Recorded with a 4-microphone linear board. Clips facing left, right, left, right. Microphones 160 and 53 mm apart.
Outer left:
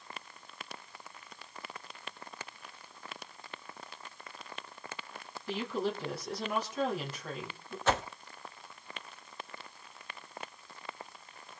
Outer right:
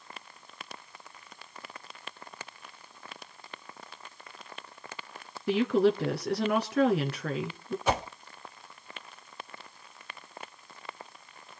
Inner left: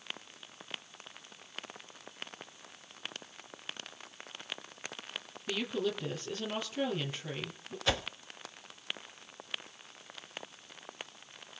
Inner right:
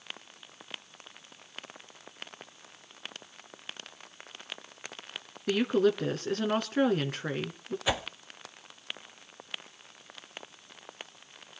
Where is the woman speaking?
65° right (ahead or behind), 3 m.